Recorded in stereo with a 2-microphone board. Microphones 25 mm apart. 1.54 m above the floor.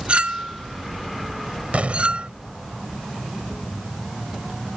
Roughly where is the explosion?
Right.